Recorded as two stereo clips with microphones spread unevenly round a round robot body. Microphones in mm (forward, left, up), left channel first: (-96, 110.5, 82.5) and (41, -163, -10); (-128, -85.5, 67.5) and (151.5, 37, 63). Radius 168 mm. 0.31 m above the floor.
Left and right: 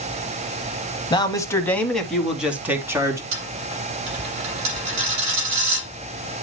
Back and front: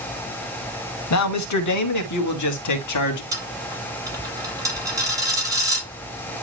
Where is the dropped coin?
55° right, 5.5 m.